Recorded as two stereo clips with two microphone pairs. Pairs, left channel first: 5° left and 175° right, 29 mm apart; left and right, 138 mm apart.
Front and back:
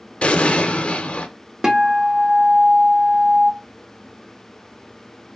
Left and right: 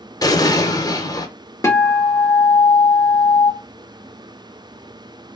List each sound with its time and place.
0.2 s an explosion: 35° left, 0.7 m
1.6 s a guitar: 145° left, 0.8 m